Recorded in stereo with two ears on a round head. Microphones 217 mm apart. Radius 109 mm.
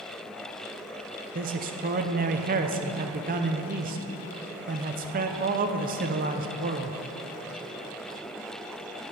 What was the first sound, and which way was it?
A man speaking, 35° right (ahead or behind).